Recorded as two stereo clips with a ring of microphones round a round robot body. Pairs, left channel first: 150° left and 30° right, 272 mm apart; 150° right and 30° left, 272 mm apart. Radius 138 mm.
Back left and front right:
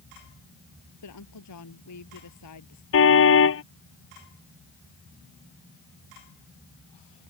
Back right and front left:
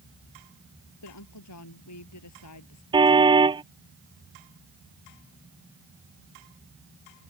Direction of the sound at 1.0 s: Straight behind.